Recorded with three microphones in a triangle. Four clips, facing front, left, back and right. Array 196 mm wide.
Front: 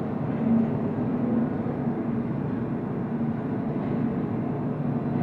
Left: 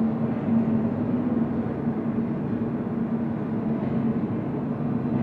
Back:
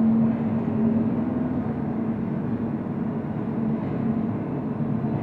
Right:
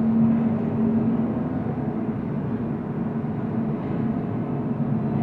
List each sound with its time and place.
0.0 s an engine running: 115° right, 0.7 m